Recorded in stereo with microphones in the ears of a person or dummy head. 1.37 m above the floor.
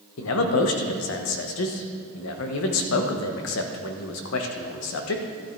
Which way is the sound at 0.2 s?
65° left (ahead or behind).